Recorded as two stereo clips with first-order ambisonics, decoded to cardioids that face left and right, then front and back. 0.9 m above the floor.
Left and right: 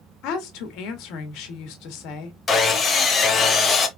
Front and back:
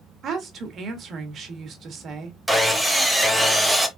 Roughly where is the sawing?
Left.